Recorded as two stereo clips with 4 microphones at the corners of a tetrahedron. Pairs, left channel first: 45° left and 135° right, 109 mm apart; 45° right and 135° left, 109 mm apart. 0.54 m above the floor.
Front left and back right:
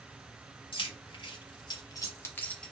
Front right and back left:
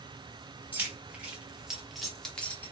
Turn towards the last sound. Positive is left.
turn(degrees=-30)